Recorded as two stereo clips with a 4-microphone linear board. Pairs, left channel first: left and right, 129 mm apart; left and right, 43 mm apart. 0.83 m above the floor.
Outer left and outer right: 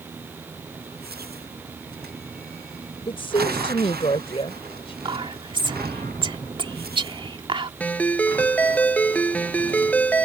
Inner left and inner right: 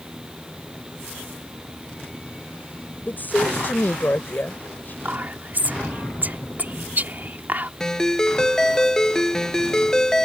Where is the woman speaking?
45° left (ahead or behind).